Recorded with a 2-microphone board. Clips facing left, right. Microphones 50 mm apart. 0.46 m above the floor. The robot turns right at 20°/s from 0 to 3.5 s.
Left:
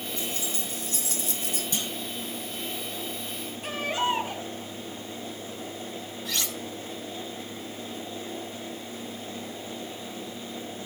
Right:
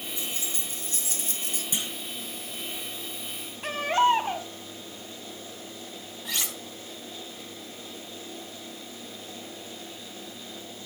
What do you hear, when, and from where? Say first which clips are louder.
0.2 s keys jangling: left 3 dB; 20° right (ahead or behind), 4 m; by 1.6 s 50° right (ahead or behind), 4 m
1.7 s a clunk: right 1 dB; 20° right (ahead or behind), 1.6 m
3.6 s a baby crying: right 5 dB; 55° right (ahead or behind), 2.5 m
6.2 s cutlery clinking: even; 20° right (ahead or behind), 2.5 m